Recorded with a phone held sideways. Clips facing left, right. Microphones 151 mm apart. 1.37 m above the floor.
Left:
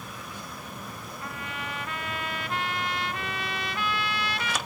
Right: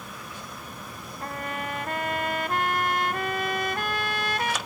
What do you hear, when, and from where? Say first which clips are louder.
1.2 s a trumpet: right 6 dB; 50° right (ahead or behind), 1.4 m